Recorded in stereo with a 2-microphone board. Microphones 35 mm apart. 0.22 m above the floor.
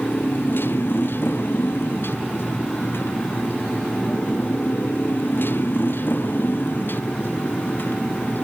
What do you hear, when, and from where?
0.0 s a motorcycle: 90° left; by 8.4 s 65° left (ahead or behind)